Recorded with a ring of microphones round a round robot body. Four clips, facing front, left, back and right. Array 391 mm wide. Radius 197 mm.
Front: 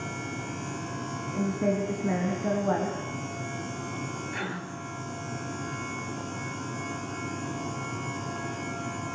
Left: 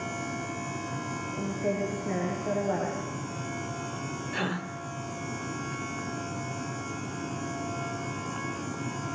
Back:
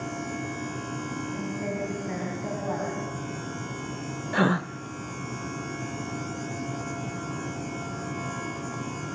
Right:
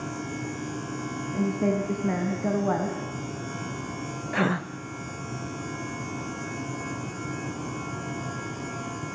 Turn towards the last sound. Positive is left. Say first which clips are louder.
# right 8 dB, back 15 dB
turn(degrees=-150)